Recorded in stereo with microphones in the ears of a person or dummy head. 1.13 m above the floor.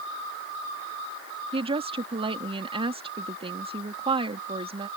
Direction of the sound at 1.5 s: 30° right (ahead or behind).